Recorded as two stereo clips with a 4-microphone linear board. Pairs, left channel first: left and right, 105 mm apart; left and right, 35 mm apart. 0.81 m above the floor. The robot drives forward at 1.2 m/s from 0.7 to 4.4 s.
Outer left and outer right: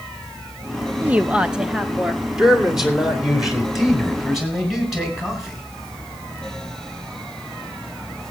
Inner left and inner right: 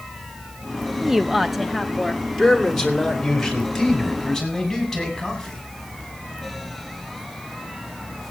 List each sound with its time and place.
1.0 s a woman speaking: 15° right (ahead or behind), 0.5 m; by 2.2 s 5° right (ahead or behind), 1.7 m
2.4 s a man speaking: 5° right (ahead or behind), 2 m; by 5.6 s centre (ahead or behind), 4.5 m